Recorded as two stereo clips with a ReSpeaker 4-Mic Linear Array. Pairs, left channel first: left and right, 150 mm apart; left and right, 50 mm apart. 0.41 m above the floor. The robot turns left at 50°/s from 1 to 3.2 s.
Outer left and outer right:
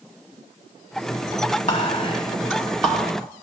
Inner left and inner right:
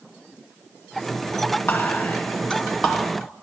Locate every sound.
1.7 s whispering: 55° left (ahead or behind), 3 m; by 3.1 s 5° right (ahead or behind), 3 m